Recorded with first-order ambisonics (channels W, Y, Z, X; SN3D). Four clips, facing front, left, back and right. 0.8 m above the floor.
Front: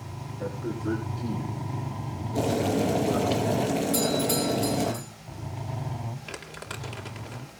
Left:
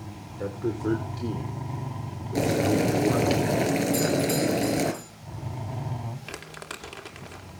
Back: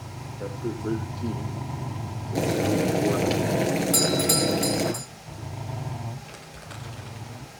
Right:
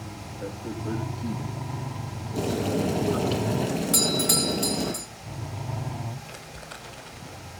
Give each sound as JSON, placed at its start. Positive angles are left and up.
{"t": 0.4, "sound": "a man speaking", "azimuth_deg": 105, "distance_m": 3.0}
{"t": 2.4, "sound": "boiling", "azimuth_deg": 125, "distance_m": 4.0}
{"t": 3.9, "sound": "a doorbell", "azimuth_deg": -130, "distance_m": 1.5}
{"t": 6.3, "sound": "crumpling", "azimuth_deg": 65, "distance_m": 3.0}